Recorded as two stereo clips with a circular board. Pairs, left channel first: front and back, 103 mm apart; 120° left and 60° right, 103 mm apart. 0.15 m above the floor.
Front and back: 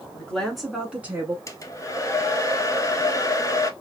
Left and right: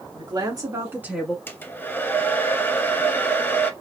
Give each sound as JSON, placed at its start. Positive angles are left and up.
{"t": 0.1, "sound": "a woman speaking", "azimuth_deg": -75, "distance_m": 1.7}
{"t": 1.5, "sound": "a hair dryer", "azimuth_deg": 55, "distance_m": 0.5}